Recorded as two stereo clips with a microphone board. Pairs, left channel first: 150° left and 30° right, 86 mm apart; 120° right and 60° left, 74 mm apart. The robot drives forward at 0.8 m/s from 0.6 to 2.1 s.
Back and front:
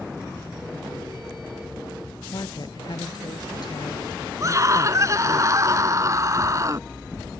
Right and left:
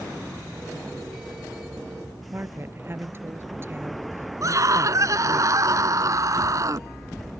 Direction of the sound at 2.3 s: 115° left.